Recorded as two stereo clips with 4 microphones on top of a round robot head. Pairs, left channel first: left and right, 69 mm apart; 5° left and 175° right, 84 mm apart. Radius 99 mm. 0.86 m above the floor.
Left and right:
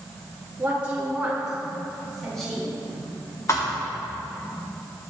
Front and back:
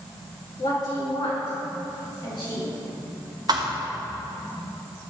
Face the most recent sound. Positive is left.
turn(degrees=150)